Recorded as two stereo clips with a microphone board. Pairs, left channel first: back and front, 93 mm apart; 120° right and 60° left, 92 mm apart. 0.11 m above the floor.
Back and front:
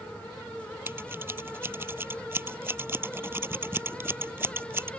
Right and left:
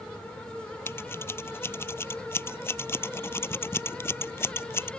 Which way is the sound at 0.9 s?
60° right.